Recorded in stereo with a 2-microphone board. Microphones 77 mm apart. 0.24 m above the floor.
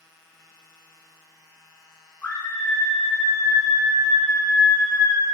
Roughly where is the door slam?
No door slam in this recording.